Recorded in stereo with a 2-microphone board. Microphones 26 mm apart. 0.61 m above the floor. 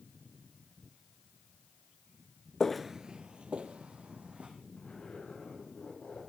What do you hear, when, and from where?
2.6 s footsteps: 20° left (ahead or behind), 0.6 m; by 4.5 s 60° right (ahead or behind), 2.5 m
4.8 s a zipper: 55° left (ahead or behind), 7.5 m